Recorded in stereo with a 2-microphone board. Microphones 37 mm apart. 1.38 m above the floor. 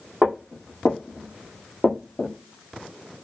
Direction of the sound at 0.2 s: 25° right (ahead or behind).